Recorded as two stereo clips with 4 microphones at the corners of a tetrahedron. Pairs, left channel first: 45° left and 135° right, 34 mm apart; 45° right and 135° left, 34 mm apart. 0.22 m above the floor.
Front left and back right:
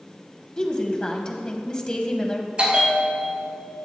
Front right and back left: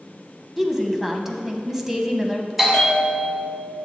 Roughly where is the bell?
Behind right.